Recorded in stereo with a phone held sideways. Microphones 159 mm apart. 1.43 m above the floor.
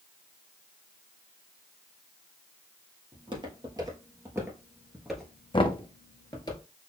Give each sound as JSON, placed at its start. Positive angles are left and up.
{"t": 3.1, "sound": "footsteps", "side_deg": -30, "distance_m": 1.9}
{"t": 5.5, "sound": "knocking", "side_deg": 30, "distance_m": 0.5}